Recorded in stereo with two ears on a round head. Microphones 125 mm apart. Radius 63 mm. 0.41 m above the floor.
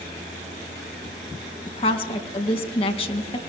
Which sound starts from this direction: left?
A woman speaking, at 1.7 s.